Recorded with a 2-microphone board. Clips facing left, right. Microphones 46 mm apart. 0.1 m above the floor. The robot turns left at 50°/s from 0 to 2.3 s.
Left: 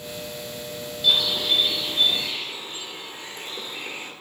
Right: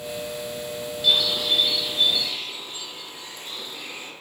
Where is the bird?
Straight behind, 1.1 m; by 4.1 s 115° left, 1.1 m.